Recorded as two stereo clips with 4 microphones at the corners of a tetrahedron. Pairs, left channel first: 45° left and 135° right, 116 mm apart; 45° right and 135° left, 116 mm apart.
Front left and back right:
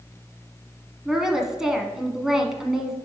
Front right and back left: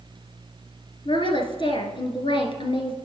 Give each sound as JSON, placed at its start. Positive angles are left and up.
{"t": 1.1, "sound": "a woman speaking", "azimuth_deg": -50, "distance_m": 1.5}